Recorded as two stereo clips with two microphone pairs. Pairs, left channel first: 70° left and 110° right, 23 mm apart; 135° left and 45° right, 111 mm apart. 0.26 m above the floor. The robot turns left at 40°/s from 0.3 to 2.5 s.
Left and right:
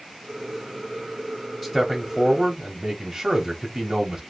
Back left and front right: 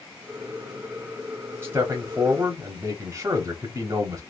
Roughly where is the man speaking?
Ahead.